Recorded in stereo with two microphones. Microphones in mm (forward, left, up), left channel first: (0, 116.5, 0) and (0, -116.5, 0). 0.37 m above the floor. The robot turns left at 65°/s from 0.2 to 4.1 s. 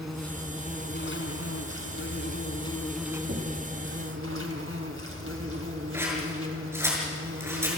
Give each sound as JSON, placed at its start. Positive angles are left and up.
{"t": 0.0, "sound": "an insect", "azimuth_deg": 180, "distance_m": 2.0}
{"t": 3.3, "sound": "knocking", "side_deg": -55, "distance_m": 2.0}
{"t": 5.9, "sound": "scissors", "side_deg": -10, "distance_m": 6.0}